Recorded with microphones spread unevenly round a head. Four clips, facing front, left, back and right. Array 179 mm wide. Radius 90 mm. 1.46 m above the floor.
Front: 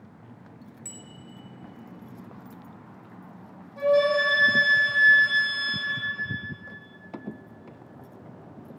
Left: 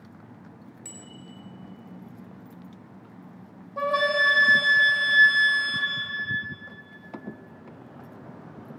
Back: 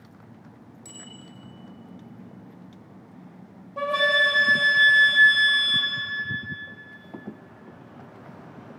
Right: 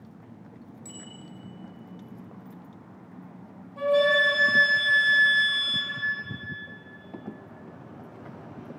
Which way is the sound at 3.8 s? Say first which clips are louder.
Right 2 dB, front 3 dB; 130° left.